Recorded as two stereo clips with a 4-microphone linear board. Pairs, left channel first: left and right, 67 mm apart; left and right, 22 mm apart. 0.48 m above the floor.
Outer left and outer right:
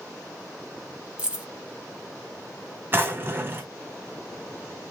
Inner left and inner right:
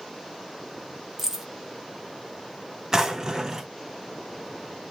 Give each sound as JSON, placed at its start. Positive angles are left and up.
{"t": 1.2, "sound": "keys jangling", "side_deg": -15, "distance_m": 0.8}
{"t": 2.9, "sound": "a drawer", "side_deg": -35, "distance_m": 0.7}